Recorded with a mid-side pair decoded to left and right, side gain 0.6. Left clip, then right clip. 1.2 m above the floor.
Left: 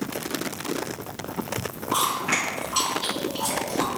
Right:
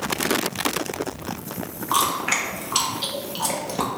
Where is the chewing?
65° right, 0.8 m.